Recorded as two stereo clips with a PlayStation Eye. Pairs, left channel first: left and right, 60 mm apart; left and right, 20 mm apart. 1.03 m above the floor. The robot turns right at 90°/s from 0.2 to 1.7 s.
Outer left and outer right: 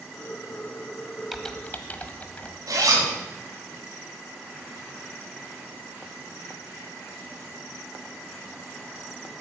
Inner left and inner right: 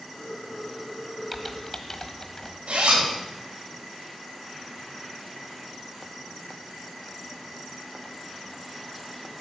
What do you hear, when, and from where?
1.3 s typing on a keyboard: 5° right (ahead or behind), 1.3 m; by 2.6 s 25° left (ahead or behind), 1.3 m
2.7 s a zipper: 75° right (ahead or behind), 4.5 m